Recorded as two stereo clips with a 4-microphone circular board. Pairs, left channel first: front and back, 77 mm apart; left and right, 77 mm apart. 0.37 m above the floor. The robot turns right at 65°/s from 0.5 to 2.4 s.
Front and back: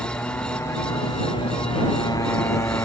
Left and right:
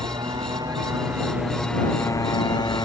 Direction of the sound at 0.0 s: 65° right.